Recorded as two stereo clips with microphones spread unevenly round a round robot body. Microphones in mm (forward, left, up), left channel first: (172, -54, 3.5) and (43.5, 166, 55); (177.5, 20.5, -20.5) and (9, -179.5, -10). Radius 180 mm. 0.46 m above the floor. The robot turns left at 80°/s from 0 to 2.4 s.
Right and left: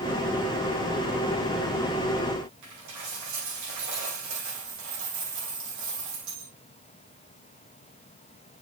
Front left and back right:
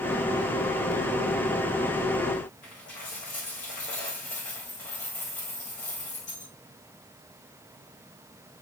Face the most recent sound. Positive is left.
turn(degrees=120)